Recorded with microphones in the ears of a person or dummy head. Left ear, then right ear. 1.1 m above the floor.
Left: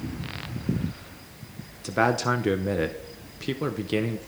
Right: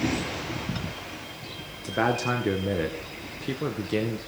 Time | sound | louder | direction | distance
1.8 | a man speaking | left 2 dB | 10° left (ahead or behind) | 0.6 m